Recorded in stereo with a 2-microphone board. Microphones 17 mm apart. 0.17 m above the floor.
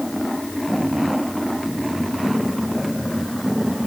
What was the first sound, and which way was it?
Only background noise.